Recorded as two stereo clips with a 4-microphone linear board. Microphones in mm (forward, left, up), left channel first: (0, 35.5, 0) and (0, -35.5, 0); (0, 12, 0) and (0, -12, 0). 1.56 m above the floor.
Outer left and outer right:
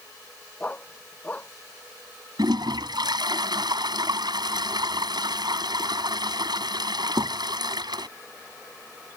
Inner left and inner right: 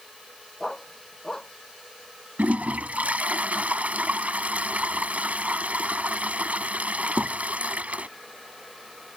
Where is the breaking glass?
No breaking glass in this recording.